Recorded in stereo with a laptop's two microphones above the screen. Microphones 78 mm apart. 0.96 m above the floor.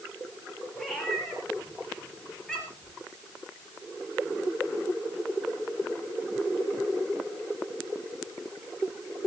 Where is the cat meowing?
10° left (ahead or behind), 5 m.